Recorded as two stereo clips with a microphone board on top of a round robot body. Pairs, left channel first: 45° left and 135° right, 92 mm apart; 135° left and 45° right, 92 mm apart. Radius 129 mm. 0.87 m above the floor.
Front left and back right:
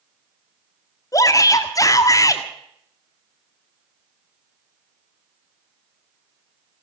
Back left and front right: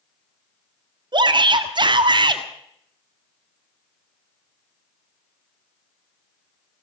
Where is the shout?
10° right, 1.7 m.